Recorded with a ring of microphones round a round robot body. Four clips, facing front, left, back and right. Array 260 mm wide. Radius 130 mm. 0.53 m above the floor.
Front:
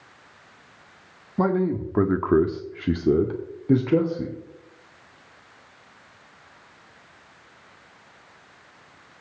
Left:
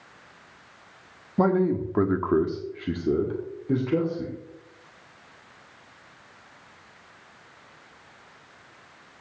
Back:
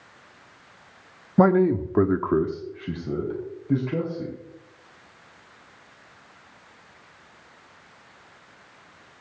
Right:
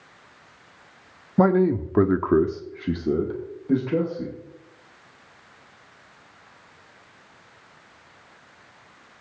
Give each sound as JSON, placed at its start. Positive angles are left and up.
{"t": 1.4, "sound": "a man speaking", "azimuth_deg": -150, "distance_m": 0.8}